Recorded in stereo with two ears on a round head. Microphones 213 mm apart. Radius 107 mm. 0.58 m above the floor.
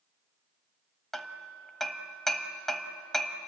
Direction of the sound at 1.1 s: Centre (ahead or behind).